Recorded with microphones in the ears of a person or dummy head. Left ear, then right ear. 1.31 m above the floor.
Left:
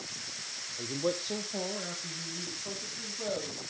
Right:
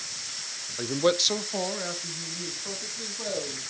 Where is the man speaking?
75° right (ahead or behind), 0.5 m; by 3.6 s 10° right (ahead or behind), 3 m.